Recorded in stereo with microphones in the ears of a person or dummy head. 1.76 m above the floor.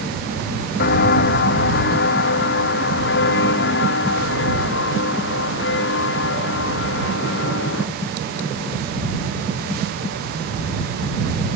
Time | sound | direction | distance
0.8 | footsteps | 65° left (ahead or behind) | ?